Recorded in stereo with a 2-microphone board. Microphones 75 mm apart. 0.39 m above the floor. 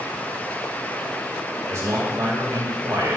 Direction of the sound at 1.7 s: 45° right (ahead or behind).